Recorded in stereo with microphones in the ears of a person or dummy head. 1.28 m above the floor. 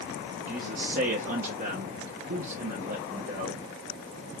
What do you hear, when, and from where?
0.5 s a man speaking: 40° right (ahead or behind), 1.2 m